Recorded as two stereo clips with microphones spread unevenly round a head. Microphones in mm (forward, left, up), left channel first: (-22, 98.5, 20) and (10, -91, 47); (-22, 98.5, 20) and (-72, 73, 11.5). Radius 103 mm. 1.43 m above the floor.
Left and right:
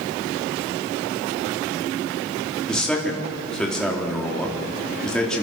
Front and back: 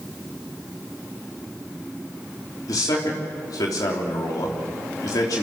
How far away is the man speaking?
About 4 m.